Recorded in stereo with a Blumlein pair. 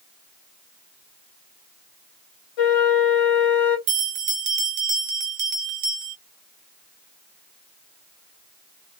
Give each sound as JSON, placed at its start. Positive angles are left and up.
{"t": 2.6, "sound": "a flute", "azimuth_deg": 45, "distance_m": 1.2}
{"t": 3.9, "sound": "a bell", "azimuth_deg": -45, "distance_m": 0.8}